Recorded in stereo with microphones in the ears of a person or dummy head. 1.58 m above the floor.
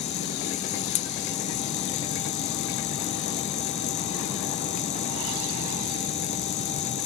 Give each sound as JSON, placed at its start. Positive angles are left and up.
{"t": 0.0, "sound": "a machine running", "side_deg": 35, "distance_m": 0.7}